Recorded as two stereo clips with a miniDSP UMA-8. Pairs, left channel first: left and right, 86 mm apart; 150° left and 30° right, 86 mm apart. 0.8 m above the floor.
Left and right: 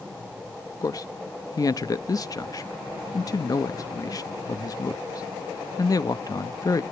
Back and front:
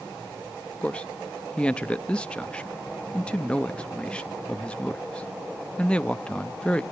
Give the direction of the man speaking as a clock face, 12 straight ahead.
9 o'clock.